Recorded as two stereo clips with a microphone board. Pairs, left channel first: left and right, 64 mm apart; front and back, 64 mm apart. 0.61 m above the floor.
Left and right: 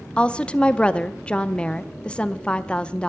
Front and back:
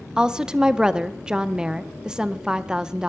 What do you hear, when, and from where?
0.2 s a woman speaking: 125° left, 0.6 m